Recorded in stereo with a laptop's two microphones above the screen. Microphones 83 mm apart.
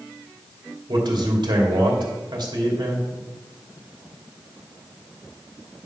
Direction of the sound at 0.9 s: 60° right (ahead or behind).